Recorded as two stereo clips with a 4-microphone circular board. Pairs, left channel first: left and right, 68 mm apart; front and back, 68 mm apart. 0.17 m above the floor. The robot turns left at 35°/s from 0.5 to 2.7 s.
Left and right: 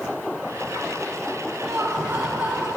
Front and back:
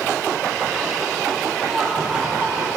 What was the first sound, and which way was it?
Laughter, 125° right.